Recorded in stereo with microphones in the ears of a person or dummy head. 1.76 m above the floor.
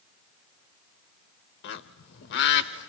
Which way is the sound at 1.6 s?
60° left (ahead or behind).